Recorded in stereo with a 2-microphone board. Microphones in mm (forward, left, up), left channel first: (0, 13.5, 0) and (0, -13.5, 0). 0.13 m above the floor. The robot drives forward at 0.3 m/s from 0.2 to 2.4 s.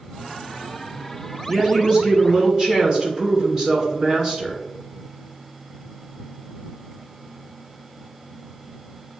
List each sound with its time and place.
1.5 s a woman speaking: 30° right (ahead or behind), 1.2 m; by 4.6 s 25° right (ahead or behind), 1.3 m